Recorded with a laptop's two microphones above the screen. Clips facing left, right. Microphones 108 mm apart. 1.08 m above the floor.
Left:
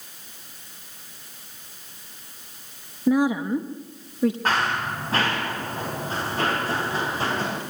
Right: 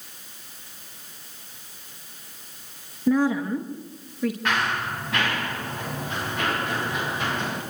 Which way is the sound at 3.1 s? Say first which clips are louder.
Left 1 dB; 10° left (ahead or behind).